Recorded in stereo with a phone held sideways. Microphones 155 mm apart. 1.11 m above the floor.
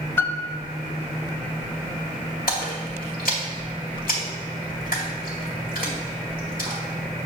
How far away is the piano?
About 0.6 m.